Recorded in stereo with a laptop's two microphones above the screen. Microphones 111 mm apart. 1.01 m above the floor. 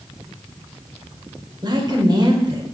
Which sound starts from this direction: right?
A woman speaking, at 1.6 s.